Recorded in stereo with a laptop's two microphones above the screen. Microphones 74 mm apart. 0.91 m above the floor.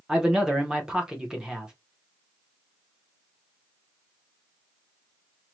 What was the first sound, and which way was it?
A man speaking, 10° right (ahead or behind).